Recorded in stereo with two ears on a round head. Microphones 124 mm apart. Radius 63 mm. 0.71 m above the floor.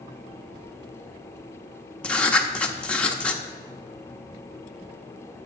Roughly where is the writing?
Centre.